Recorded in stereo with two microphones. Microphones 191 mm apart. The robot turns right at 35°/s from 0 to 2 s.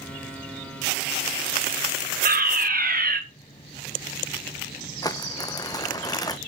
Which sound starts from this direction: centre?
Crumpling, at 5.0 s.